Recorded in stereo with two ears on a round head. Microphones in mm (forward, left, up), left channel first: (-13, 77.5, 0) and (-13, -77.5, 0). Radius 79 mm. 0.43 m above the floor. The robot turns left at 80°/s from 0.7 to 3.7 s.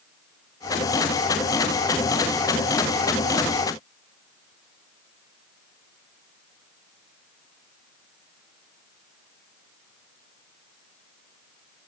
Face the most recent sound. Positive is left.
No sound to turn to.